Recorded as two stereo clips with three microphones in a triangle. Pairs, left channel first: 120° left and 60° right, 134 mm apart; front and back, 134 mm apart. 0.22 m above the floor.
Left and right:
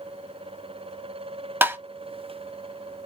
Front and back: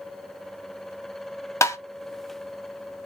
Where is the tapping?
10° right, 0.6 m.